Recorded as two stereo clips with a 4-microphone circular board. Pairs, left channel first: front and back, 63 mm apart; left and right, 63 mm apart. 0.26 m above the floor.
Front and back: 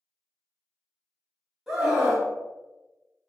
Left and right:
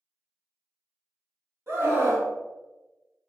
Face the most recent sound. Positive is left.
turn(degrees=-100)